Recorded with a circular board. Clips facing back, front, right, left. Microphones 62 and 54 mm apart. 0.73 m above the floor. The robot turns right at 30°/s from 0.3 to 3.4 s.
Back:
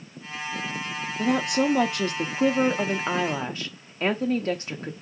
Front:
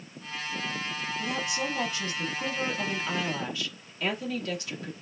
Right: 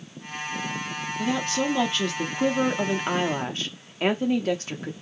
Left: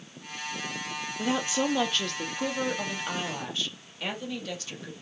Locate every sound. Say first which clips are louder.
1.2 s a woman speaking: back 11 dB, right 2 dB; 155° left, 0.8 m; by 4.9 s 135° right, 0.8 m